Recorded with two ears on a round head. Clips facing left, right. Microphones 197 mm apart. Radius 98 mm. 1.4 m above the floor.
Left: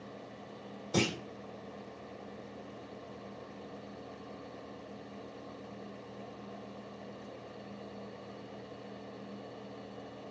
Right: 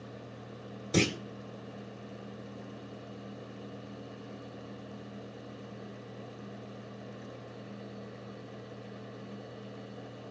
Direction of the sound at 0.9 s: 25° right (ahead or behind).